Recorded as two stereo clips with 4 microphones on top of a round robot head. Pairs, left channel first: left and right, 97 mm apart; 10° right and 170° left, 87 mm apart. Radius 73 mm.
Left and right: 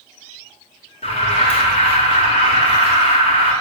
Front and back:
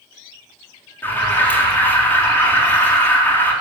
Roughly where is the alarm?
Ahead left.